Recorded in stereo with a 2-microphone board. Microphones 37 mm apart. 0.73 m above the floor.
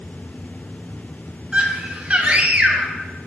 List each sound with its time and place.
1.5 s a scream: 25° right (ahead or behind), 1.0 m